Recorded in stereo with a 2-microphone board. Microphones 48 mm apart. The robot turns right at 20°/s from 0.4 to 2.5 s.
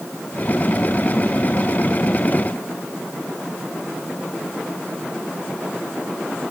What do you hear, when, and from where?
Only background noise.